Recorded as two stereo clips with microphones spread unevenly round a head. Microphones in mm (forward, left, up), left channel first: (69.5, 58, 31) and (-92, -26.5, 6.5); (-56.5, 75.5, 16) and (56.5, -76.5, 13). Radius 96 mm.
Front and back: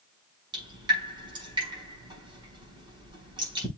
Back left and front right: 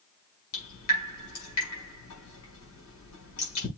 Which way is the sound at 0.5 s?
140° left.